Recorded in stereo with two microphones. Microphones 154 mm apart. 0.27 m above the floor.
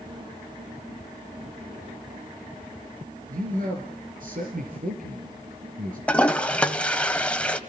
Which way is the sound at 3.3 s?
65° right (ahead or behind).